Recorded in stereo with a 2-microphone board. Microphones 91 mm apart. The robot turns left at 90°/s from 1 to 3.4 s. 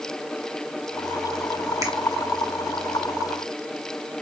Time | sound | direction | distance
1.8 | a finger snap | 40° right (ahead or behind) | 2 m